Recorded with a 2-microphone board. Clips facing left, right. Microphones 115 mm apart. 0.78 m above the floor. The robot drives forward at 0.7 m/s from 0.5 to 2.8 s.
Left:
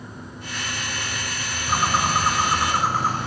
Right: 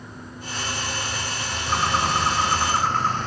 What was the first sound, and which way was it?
A bird, 10° left (ahead or behind).